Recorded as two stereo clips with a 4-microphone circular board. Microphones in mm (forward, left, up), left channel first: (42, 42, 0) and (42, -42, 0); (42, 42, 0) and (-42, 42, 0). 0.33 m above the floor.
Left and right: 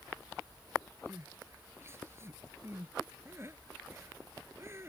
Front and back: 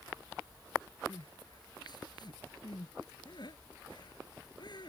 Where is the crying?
30° right.